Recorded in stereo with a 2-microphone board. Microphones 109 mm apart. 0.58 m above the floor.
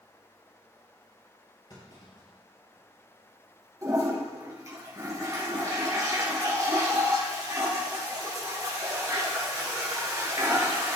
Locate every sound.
1.7 s a clunk: 40° left (ahead or behind), 4 m
3.8 s a toilet flushing: 30° right (ahead or behind), 4 m